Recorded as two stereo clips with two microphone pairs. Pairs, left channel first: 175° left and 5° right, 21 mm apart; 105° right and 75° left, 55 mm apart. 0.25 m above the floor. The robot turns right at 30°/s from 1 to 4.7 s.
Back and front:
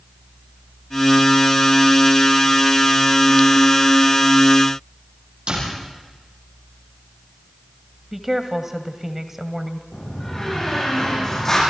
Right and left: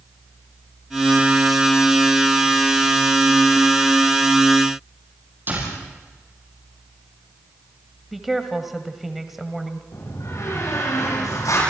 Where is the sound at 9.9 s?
115° right, 10 m.